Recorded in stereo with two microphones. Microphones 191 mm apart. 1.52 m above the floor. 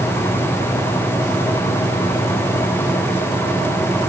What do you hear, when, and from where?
Only background noise.